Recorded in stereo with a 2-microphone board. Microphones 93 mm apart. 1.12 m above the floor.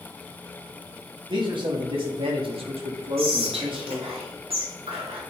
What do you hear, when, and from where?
1.3 s a man speaking: 55° right (ahead or behind), 2.5 m; by 4.2 s 60° right (ahead or behind), 2.5 m
3.2 s whispering: 90° right, 2 m